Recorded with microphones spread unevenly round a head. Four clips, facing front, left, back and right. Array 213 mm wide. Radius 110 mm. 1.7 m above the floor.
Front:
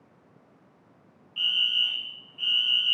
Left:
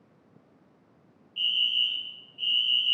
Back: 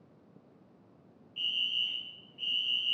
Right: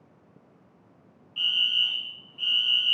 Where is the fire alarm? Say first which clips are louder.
Right 2 dB, front 8 dB; 50° right, 0.8 m.